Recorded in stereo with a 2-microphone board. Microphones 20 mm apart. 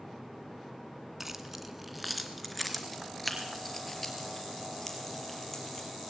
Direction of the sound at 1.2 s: 15° right (ahead or behind).